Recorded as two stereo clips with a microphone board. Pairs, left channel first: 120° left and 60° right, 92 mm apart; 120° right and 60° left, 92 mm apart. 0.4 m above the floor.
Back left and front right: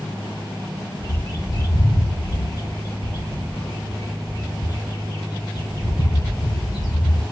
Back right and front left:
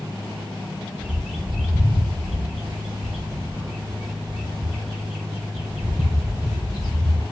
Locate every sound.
1.0 s a bird: 145° left, 2 m